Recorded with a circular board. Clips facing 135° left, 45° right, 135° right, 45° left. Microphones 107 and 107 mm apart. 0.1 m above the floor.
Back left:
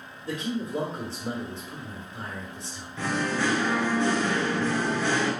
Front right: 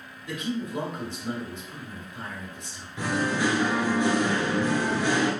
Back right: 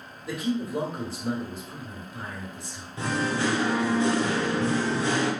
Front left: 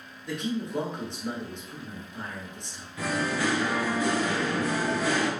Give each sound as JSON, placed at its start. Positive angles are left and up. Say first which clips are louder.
{"t": 0.3, "sound": "a man speaking", "louder": "back left 1 dB, back right 2 dB", "azimuth_deg": 145, "distance_m": 1.5}
{"t": 3.0, "sound": "singing", "louder": "front right 1 dB, back right 1 dB", "azimuth_deg": -105, "distance_m": 1.0}